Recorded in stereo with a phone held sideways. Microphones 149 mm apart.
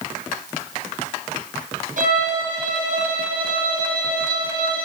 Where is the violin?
65° right (ahead or behind), 3 m.